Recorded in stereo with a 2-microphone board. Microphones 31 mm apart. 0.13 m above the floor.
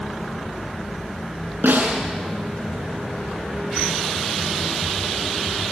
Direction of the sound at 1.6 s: 85° right.